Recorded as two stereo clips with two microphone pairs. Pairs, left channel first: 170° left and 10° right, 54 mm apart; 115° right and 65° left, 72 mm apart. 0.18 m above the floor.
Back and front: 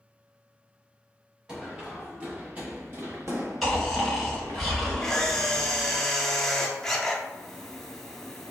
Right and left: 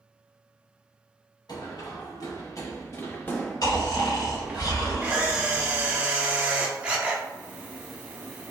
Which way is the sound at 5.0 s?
105° left.